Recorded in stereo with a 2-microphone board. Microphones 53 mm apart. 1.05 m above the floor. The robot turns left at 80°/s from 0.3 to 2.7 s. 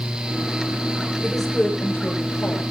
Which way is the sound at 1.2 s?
165° right.